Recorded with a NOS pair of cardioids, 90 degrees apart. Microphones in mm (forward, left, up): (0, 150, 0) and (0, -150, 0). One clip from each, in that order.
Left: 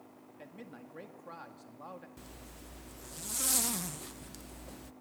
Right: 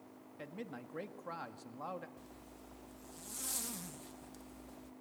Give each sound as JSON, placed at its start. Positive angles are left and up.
{"t": 0.4, "sound": "a man speaking", "azimuth_deg": -25, "distance_m": 1.9}
{"t": 2.2, "sound": "a zipper", "azimuth_deg": 45, "distance_m": 0.6}